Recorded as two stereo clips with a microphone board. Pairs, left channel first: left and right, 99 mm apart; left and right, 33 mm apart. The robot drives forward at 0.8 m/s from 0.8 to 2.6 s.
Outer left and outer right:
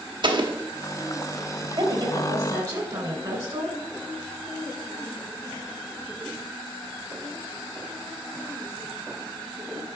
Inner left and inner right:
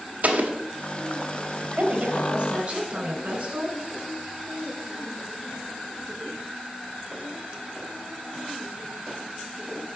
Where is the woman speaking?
40° right (ahead or behind), 2 m; by 3.8 s 30° right (ahead or behind), 2.5 m.